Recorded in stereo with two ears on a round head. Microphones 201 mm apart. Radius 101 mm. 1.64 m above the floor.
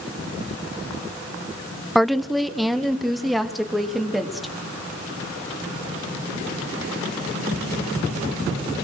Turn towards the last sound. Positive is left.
turn(degrees=0)  # may be behind; listen again after turning